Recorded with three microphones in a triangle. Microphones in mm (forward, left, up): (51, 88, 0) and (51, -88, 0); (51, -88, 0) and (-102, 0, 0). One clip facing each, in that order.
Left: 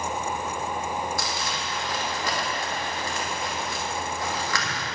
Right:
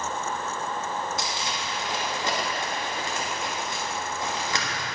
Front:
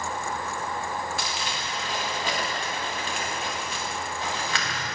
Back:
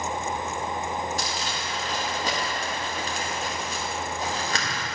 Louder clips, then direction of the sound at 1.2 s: Left 1 dB, back 1 dB; 155° right.